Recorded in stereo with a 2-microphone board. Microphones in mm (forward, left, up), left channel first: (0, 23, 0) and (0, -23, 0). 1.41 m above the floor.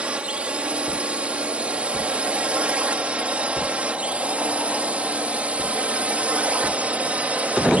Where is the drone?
25° right (ahead or behind); by 7.8 s 30° right (ahead or behind).